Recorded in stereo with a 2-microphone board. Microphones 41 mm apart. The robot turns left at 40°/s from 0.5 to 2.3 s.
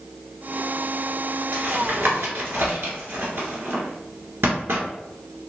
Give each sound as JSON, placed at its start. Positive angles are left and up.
{"t": 1.5, "sound": "tapping", "side_deg": -40, "distance_m": 1.2}